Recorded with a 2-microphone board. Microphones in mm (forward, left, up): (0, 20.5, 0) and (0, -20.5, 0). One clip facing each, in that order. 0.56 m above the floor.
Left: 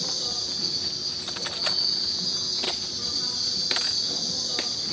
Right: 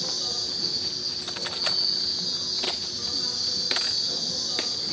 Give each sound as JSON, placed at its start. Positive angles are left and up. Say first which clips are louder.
{"t": 0.0, "sound": "an insect", "louder": "even", "side_deg": 0, "distance_m": 5.5}